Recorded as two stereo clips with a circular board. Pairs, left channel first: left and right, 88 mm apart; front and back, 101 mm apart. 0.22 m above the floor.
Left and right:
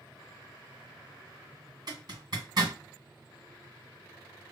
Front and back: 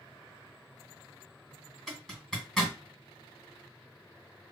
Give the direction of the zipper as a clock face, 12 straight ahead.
3 o'clock.